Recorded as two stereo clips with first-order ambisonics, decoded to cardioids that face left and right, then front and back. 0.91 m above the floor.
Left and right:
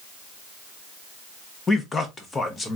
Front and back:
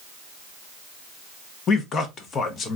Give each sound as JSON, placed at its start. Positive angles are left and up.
{"t": 1.7, "sound": "a man speaking", "azimuth_deg": 30, "distance_m": 0.7}